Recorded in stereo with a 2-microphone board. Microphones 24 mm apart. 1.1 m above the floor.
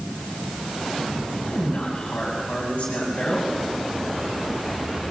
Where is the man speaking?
55° left (ahead or behind), 6 m.